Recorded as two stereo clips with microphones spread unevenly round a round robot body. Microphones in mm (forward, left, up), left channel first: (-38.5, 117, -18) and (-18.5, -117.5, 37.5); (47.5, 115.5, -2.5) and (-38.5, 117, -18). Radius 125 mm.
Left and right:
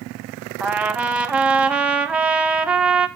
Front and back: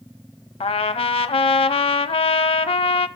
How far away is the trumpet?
About 0.8 m.